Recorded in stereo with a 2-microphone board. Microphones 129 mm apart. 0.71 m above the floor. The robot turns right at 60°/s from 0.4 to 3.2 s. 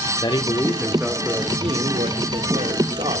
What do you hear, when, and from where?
0.2 s a man speaking: 145° left, 2.5 m; by 3.2 s 45° right, 2.5 m